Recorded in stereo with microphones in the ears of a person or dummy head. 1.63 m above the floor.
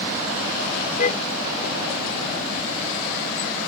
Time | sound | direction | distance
1.0 | a car horn | 45° left (ahead or behind) | ?